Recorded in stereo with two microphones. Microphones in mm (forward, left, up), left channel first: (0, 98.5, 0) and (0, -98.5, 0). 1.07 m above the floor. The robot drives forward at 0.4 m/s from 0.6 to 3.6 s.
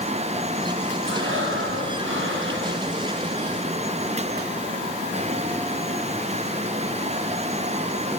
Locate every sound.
1.1 s breathing: 85° right, 5 m; by 2.9 s 80° right, 5 m